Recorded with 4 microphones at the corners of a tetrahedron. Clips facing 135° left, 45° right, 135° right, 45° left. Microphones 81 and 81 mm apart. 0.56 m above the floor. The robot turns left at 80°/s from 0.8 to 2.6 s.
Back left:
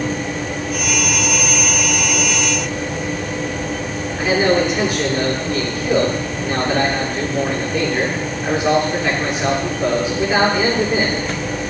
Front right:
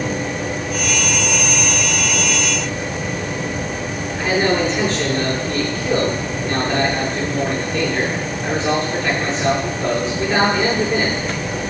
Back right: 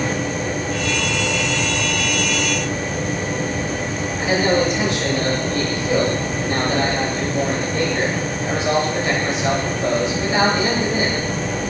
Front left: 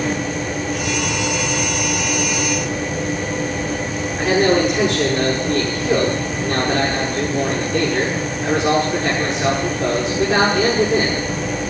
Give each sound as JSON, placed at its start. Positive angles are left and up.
{"t": 4.2, "sound": "a man speaking", "azimuth_deg": 55, "distance_m": 8.0}